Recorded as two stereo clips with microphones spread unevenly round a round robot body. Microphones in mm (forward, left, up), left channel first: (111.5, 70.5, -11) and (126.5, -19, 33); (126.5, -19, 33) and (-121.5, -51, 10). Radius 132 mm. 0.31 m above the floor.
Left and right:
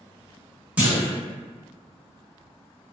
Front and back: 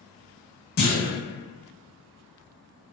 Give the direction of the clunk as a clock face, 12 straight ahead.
11 o'clock.